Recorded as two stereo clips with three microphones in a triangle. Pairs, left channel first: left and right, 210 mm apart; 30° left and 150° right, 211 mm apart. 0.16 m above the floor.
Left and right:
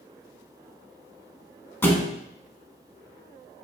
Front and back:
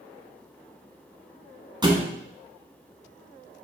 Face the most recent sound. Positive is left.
turn(degrees=165)